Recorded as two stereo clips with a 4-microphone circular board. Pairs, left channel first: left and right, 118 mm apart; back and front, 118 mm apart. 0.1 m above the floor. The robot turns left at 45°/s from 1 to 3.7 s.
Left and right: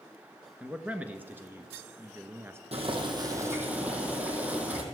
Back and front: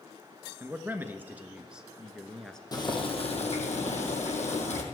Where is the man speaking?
35° right, 1.1 m; by 2.6 s 105° right, 1.1 m.